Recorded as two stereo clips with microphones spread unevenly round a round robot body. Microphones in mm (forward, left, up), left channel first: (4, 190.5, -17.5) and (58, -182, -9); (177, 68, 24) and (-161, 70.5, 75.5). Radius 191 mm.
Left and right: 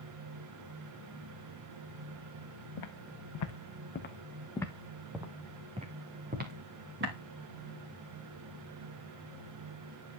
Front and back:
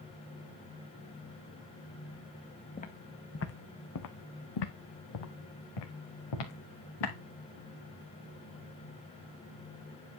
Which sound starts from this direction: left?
Footsteps, at 2.8 s.